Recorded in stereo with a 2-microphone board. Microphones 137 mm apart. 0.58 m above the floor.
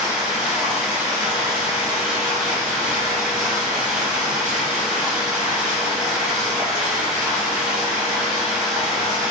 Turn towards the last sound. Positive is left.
turn(degrees=-5)  # may be behind; listen again after turning